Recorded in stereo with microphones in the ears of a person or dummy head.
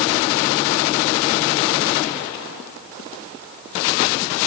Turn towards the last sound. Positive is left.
No sound to turn to.